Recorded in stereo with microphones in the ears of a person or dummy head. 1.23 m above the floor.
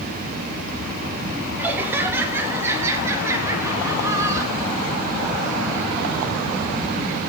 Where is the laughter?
10° right (ahead or behind), 5 m; by 4.8 s 20° right (ahead or behind), 6.5 m.